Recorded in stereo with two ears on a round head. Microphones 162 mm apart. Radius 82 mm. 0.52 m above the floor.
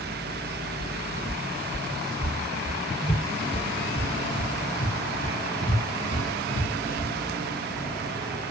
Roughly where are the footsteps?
Centre.